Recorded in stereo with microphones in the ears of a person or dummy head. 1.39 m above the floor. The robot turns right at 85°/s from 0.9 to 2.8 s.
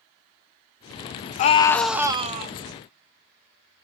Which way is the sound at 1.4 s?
135° left.